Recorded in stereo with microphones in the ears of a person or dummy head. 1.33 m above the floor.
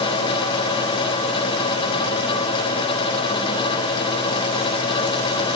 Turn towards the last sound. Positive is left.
No sound to turn to.